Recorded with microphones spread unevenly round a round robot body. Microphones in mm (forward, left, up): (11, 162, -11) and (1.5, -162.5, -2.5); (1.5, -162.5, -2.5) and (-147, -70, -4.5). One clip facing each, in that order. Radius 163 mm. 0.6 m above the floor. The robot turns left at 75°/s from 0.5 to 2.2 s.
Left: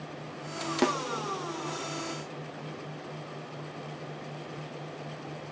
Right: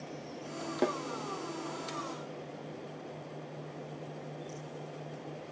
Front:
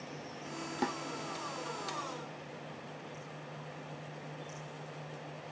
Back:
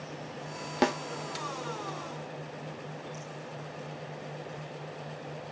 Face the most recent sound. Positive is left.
turn(degrees=45)